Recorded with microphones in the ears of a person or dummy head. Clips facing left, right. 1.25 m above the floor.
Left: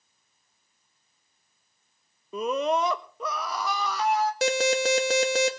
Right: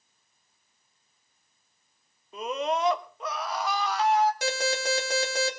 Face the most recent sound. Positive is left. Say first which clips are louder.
# left 5 dB
turn(degrees=65)  # may be behind; listen again after turning